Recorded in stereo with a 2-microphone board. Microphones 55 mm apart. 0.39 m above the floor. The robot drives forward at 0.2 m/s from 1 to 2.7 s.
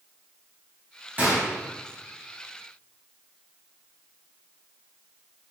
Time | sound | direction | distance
1.2 | a gunshot | 30° right (ahead or behind) | 3 m